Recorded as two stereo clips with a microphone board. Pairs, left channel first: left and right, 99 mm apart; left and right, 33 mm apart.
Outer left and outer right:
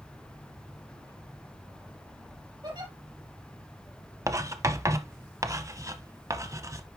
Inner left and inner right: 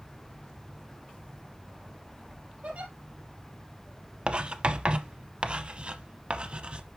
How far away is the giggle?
About 3 m.